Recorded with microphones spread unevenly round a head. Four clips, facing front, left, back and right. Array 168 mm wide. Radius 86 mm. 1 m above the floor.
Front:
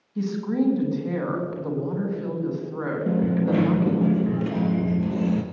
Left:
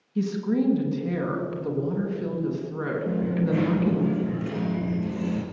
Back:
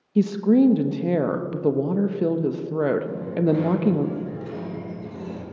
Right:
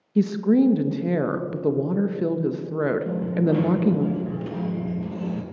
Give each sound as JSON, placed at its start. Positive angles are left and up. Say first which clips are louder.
{"t": 0.1, "sound": "a woman speaking", "louder": "right 6 dB, back 7 dB", "azimuth_deg": -135, "distance_m": 1.0}
{"t": 3.1, "sound": "a dropped coin", "louder": "right 3 dB, even", "azimuth_deg": 5, "distance_m": 1.9}